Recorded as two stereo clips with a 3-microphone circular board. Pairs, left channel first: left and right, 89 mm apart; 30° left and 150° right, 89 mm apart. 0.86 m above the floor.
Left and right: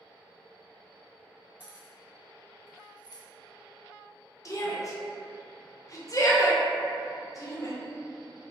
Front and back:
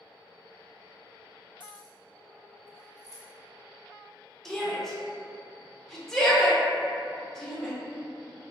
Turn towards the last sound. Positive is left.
turn(degrees=110)